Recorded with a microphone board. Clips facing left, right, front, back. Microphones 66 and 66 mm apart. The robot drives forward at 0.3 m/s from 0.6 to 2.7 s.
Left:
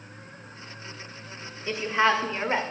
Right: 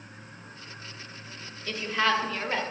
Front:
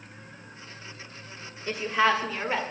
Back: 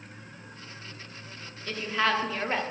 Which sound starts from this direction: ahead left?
A woman speaking, at 1.7 s.